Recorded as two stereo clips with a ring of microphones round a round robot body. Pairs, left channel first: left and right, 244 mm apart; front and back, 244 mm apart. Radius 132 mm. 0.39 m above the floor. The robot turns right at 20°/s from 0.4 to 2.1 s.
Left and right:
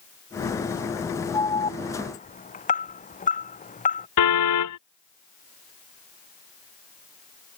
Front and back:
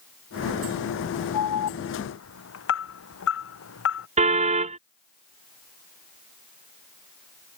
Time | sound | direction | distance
1.3 | an alarm | 15° left | ?
4.2 | a car horn | 115° left | ?